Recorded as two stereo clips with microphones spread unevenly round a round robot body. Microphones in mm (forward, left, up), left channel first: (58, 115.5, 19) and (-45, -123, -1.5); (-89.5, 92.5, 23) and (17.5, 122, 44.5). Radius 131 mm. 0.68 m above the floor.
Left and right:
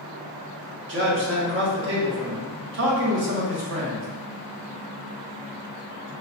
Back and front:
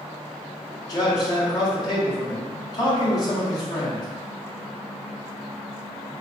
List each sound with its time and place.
0.9 s a man speaking: 135° right, 1.0 m